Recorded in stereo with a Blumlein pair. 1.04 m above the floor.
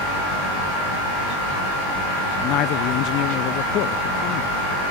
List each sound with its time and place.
2.4 s a man speaking: 40° left